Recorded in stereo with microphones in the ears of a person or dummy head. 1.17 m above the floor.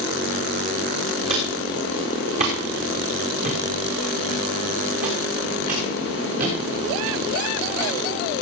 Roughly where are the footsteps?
Right.